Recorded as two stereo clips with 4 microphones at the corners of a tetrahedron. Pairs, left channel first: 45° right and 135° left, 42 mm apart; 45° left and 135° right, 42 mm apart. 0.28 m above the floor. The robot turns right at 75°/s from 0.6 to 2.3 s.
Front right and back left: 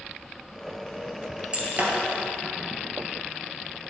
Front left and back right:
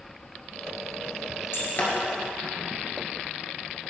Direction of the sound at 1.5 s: 70° left.